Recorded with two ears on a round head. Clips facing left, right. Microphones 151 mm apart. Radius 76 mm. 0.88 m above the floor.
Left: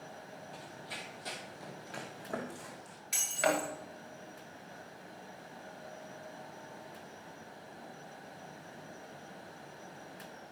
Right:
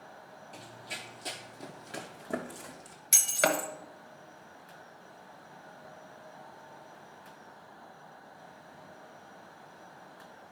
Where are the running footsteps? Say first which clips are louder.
Even; 20° right (ahead or behind), 1.1 m; by 3.0 s 25° right (ahead or behind), 2 m.